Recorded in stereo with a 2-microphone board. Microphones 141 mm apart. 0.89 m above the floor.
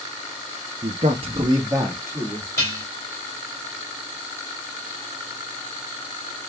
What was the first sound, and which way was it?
A man speaking, 60° right (ahead or behind).